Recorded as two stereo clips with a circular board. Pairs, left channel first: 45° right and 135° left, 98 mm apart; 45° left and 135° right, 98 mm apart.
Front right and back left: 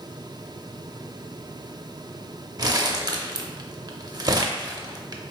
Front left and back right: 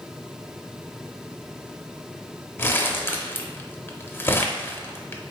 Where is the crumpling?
105° left, 0.6 m.